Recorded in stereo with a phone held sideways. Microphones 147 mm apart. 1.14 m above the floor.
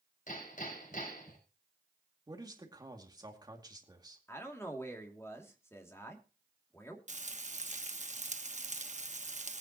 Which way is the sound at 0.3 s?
65° left (ahead or behind).